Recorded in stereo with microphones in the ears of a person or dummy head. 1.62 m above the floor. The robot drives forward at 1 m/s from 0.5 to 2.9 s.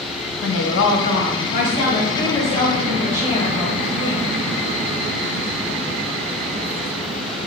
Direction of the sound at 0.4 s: 70° left (ahead or behind).